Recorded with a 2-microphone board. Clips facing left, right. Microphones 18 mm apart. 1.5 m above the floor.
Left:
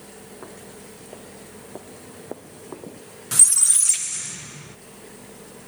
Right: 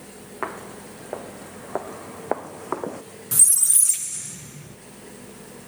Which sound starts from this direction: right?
Footsteps, at 0.4 s.